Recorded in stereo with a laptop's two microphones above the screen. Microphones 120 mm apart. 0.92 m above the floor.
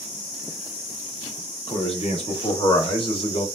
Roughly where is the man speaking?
Left.